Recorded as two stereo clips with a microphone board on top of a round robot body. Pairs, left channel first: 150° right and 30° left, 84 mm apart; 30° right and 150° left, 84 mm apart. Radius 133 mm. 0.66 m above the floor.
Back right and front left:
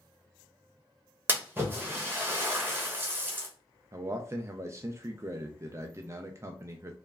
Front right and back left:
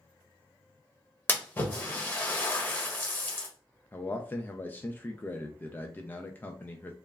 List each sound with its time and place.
1.3 s a splash: straight ahead, 1.2 m
3.9 s a man speaking: 20° left, 0.5 m